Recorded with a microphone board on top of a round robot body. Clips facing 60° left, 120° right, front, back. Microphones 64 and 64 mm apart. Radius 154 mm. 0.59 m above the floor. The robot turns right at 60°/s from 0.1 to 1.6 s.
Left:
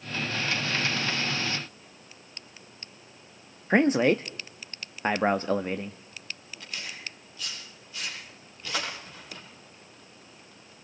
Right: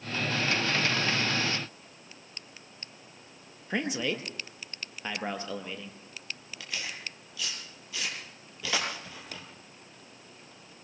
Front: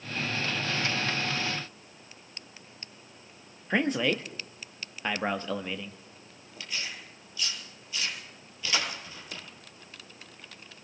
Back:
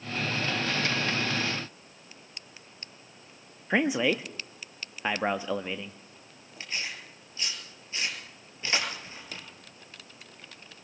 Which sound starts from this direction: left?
A man speaking, at 3.7 s.